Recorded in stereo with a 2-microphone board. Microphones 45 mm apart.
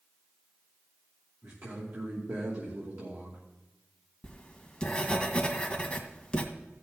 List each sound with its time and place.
1.4 s a man speaking: 70° right (ahead or behind), 2.5 m
4.2 s writing: 20° left (ahead or behind), 1.7 m